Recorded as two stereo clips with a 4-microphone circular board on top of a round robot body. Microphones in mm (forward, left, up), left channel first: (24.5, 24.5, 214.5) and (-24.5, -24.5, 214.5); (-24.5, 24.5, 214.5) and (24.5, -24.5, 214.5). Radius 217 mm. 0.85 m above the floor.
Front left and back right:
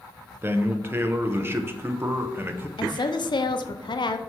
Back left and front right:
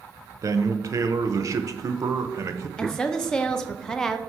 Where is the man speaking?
80° right, 1.0 m.